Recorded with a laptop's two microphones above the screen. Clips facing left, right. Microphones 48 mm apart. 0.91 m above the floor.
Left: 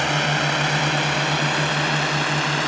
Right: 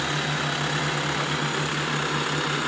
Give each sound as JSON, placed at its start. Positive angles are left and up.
{"t": 0.0, "sound": "a drone", "side_deg": 65}